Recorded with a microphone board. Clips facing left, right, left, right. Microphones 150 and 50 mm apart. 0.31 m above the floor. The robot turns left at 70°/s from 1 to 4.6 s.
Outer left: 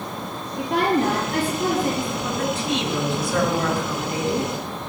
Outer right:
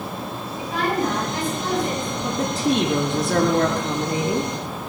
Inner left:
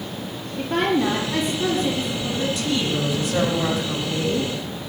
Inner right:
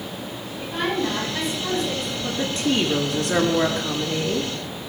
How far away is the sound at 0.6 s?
About 8 m.